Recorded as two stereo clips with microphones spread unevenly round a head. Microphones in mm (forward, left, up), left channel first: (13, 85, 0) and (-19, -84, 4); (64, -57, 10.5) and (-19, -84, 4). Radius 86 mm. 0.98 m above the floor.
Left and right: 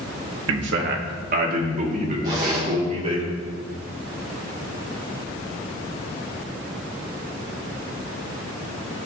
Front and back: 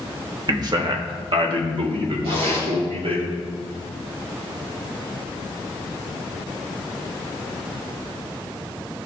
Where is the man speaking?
120° right, 1.3 m; by 3.2 s 160° right, 3 m.